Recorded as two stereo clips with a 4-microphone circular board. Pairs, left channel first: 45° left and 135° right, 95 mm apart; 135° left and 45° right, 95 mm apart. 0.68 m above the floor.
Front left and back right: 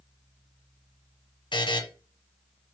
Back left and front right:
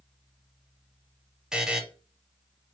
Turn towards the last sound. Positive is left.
turn(degrees=35)